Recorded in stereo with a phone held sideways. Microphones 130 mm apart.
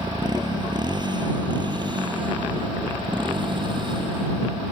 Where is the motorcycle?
30° right (ahead or behind); by 4.7 s 40° right (ahead or behind).